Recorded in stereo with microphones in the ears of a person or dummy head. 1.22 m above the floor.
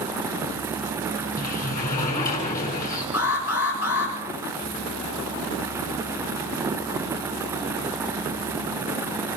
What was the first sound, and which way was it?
A sliding door, 50° left (ahead or behind).